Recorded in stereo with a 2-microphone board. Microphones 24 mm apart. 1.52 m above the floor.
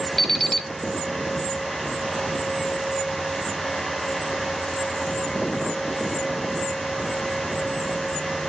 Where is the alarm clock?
25° left (ahead or behind), 0.7 m.